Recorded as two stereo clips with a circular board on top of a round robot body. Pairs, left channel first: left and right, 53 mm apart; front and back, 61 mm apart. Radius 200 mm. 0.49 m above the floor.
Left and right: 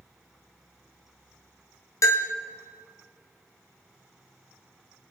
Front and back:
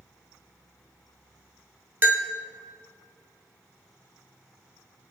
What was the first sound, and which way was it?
A bell, 120° left.